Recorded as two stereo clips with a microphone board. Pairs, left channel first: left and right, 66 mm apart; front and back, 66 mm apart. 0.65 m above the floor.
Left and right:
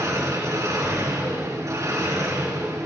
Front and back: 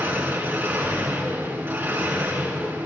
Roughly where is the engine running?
Behind right.